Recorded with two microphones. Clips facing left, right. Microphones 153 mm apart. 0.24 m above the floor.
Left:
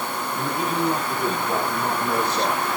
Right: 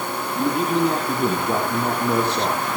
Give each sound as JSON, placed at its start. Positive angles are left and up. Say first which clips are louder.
{"t": 0.3, "sound": "a man speaking", "louder": "right 6 dB", "side_deg": -80, "distance_m": 7.0}